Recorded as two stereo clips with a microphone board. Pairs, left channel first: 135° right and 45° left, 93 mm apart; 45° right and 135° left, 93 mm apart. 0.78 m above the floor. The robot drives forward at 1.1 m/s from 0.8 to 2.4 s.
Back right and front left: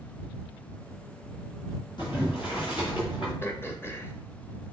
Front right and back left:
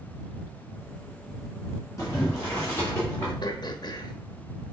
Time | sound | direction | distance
2.0 | boiling | 100° right | 4 m
3.4 | throat clearing | 75° right | 1.0 m